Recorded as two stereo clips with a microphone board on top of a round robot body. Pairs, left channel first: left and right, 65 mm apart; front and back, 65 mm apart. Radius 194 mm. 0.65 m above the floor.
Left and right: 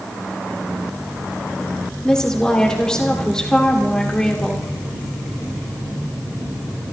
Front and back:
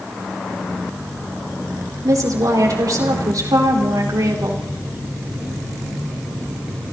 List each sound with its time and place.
2.0 s a woman speaking: 170° left, 3.5 m